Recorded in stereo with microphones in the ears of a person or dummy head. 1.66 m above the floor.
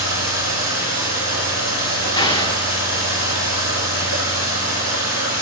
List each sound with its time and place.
0.0 s running water: 60° left (ahead or behind), 5.5 m
2.2 s an explosion: 30° left (ahead or behind), 1.1 m